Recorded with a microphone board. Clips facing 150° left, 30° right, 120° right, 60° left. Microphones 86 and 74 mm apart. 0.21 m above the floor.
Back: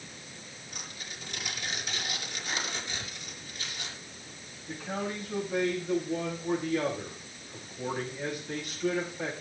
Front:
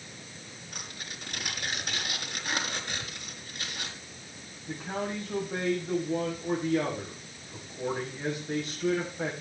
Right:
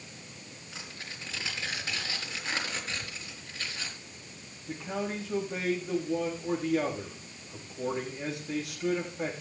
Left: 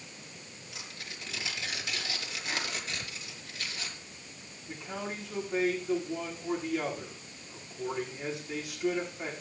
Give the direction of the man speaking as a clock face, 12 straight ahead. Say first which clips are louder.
Front 1 dB, right 4 dB; 3 o'clock.